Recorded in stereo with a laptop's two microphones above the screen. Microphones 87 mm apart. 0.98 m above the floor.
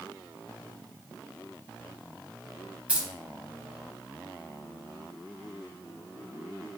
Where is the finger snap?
No finger snap in this recording.